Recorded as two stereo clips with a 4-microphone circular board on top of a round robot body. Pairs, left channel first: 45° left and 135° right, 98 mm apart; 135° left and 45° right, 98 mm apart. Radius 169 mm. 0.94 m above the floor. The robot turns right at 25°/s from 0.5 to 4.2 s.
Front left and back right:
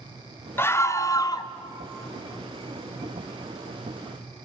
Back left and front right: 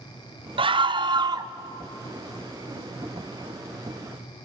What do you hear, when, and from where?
0.6 s a scream: 20° right, 1.3 m; by 1.5 s straight ahead, 1.3 m